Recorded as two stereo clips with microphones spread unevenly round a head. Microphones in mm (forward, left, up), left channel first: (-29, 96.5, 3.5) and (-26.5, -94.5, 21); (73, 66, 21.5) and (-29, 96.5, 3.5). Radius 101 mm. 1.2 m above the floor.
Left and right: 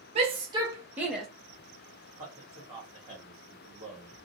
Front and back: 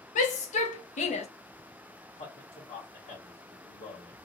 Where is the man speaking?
15° right, 1.5 m.